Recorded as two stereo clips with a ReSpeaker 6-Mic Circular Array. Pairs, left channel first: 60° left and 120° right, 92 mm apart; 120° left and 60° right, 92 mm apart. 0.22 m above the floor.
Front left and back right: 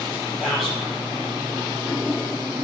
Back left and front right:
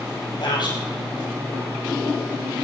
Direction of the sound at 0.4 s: 150° left.